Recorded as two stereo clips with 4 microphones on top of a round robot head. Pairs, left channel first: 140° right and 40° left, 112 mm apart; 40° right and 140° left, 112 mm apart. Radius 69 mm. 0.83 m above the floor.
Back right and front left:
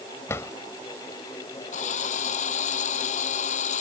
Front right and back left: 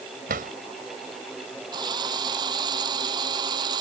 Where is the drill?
165° right.